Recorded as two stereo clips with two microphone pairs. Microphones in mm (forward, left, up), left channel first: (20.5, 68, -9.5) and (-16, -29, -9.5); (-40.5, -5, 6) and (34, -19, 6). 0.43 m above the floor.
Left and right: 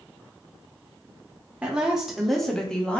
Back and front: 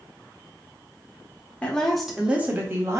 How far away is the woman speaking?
About 0.9 m.